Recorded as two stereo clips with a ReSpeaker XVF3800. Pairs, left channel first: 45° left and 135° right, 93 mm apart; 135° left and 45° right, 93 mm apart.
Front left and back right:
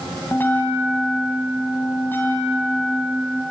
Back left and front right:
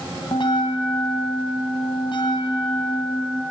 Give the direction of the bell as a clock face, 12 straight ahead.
8 o'clock.